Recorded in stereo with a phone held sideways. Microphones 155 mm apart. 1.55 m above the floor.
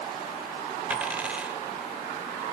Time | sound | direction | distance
0.9 | a dropped coin | 10° right (ahead or behind) | 1.8 m